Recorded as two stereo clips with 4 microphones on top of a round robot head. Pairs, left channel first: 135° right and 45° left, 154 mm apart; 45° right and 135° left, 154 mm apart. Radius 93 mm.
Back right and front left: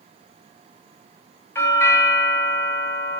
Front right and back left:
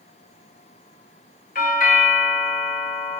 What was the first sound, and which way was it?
A doorbell, 60° right.